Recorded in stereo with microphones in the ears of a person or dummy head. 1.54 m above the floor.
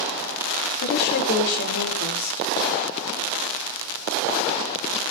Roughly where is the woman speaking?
Left.